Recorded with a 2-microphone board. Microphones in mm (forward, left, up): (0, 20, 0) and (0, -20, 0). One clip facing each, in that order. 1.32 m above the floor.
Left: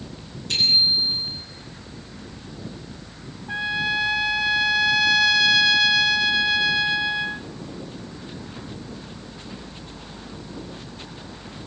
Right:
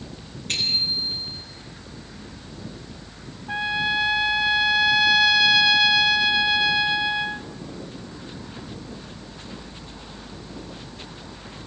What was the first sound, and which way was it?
A bicycle bell, 50° right (ahead or behind).